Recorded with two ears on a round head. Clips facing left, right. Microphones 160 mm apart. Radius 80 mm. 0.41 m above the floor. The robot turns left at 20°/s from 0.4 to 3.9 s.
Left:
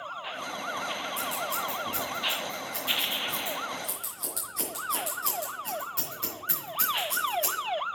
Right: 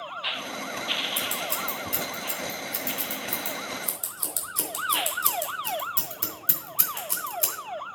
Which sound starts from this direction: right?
Scissors, at 1.2 s.